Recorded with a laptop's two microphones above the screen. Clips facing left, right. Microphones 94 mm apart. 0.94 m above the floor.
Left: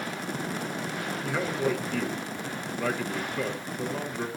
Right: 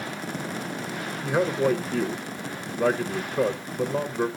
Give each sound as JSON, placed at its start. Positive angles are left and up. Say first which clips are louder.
{"t": 1.2, "sound": "a man speaking", "louder": "right 6 dB", "side_deg": -20, "distance_m": 0.8}